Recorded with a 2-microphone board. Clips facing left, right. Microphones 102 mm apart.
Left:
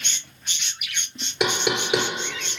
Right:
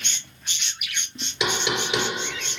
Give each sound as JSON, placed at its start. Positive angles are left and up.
{"t": 1.4, "sound": "knocking", "side_deg": 55, "distance_m": 3.0}